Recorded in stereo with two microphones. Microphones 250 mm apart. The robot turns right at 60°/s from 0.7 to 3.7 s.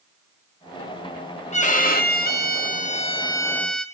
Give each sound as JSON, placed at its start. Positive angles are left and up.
{"t": 1.5, "sound": "a violin", "azimuth_deg": 45, "distance_m": 0.7}